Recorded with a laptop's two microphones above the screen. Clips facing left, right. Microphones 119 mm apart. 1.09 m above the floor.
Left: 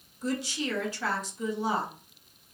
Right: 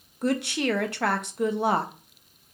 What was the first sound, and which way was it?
A woman speaking, 65° right (ahead or behind).